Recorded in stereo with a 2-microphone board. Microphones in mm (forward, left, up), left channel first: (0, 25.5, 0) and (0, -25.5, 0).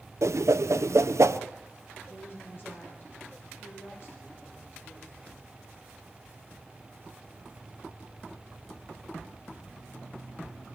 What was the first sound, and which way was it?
A whoosh, 75° right (ahead or behind).